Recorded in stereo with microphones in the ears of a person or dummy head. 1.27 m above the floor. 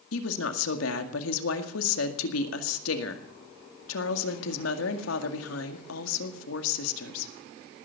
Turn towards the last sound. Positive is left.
turn(degrees=85)